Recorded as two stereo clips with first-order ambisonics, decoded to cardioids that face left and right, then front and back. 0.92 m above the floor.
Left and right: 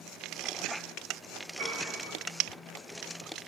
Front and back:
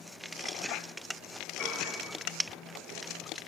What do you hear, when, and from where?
1.6 s a piano: 55° right, 8 m